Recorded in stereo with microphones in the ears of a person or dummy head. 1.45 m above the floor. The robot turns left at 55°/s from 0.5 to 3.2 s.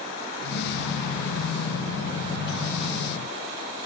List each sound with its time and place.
Only background noise.